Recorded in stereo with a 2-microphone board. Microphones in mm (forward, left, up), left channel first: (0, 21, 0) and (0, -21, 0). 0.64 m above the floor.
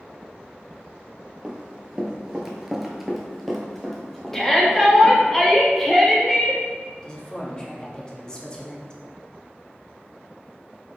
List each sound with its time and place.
1.4 s running footsteps: 15° right (ahead or behind), 0.8 m; by 5.3 s 10° left (ahead or behind), 1.5 m
4.3 s a shout: 10° left (ahead or behind), 0.6 m
7.0 s a woman speaking: 20° left (ahead or behind), 0.6 m